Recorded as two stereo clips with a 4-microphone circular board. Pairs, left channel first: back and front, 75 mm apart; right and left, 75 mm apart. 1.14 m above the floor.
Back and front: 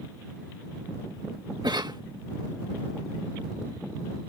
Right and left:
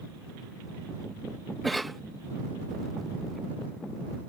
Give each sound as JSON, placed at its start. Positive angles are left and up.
{"t": 1.6, "sound": "a cough", "azimuth_deg": -5}